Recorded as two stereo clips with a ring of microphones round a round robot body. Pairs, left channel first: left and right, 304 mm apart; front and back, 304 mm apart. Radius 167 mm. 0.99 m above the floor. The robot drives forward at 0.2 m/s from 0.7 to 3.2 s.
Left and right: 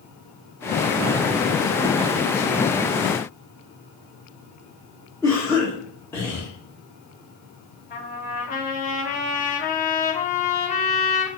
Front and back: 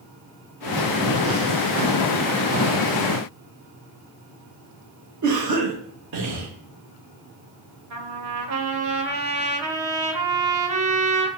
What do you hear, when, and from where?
5.2 s a cough: 170° left, 1.5 m
7.9 s a trumpet: 155° left, 1.5 m